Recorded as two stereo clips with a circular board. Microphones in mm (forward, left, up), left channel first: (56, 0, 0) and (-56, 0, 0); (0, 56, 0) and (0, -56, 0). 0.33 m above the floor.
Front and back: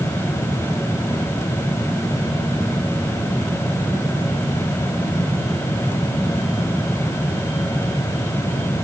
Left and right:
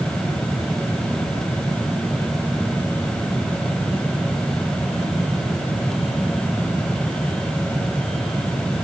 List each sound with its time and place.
Only background noise.